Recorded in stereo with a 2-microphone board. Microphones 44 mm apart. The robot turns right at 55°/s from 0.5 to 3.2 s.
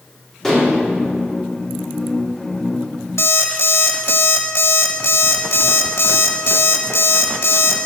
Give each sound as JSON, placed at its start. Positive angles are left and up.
{"t": 0.4, "sound": "dishes clattering", "side_deg": 10, "distance_m": 1.7}
{"t": 3.2, "sound": "an alarm clock", "side_deg": 80, "distance_m": 0.9}